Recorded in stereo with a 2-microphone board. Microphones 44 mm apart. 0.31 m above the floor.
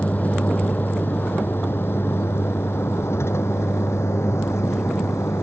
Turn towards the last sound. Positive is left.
turn(degrees=85)